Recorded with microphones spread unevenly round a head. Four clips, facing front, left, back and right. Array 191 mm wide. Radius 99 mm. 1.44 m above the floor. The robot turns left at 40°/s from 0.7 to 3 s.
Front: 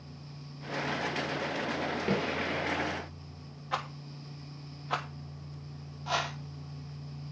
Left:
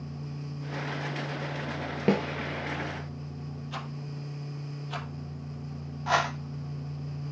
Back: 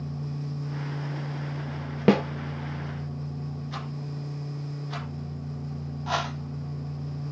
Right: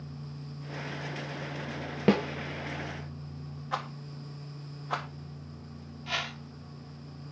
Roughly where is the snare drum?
Behind.